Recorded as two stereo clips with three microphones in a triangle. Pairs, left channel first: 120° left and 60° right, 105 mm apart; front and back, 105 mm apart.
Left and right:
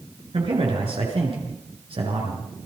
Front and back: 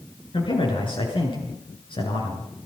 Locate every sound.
0.3 s a man speaking: 35° right, 8 m